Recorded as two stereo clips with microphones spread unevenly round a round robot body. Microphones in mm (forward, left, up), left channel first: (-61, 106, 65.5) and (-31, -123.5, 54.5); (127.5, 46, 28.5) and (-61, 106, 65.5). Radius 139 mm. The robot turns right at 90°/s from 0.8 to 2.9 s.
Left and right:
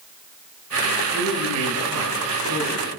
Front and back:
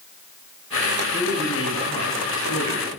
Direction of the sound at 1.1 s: 130° right.